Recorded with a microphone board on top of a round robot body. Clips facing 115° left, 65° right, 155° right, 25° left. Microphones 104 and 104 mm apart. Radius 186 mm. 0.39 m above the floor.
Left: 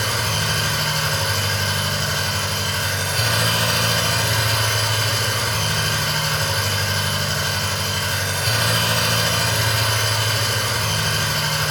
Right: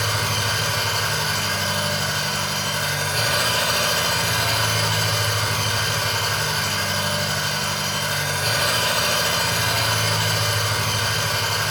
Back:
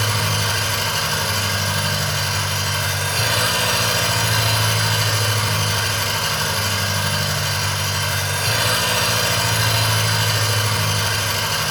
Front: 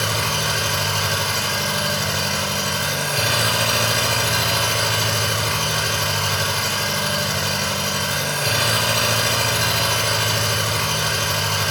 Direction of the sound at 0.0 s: 5° left.